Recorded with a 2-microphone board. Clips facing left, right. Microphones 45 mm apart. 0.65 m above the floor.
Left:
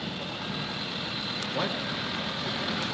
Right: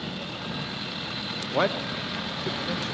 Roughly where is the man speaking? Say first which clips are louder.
Right 7 dB; right.